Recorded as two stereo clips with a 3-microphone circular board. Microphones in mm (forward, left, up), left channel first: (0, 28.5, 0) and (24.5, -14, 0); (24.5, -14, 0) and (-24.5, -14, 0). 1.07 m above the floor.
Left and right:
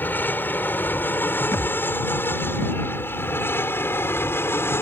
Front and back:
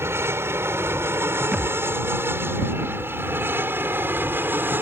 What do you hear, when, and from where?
0.0 s an aircraft: 160° left; by 4.8 s 145° left
1.5 s a thud: 120° left